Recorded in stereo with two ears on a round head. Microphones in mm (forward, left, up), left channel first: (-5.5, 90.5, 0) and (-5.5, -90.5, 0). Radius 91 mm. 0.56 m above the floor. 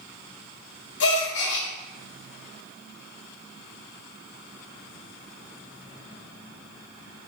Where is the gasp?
55° left (ahead or behind), 0.7 m.